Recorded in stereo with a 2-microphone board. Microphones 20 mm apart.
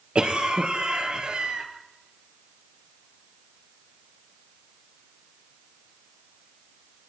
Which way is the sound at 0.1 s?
55° right (ahead or behind).